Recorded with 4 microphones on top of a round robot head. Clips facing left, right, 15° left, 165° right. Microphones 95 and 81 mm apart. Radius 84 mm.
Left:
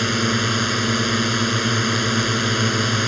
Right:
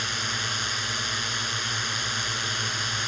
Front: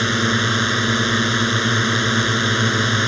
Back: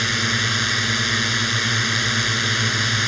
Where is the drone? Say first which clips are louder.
Left 11 dB, front 4 dB; 60° left.